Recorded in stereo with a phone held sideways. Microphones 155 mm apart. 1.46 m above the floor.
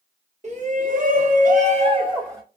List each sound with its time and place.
0.4 s a shout: 45° right (ahead or behind), 1.0 m; by 2.4 s 20° right (ahead or behind), 0.9 m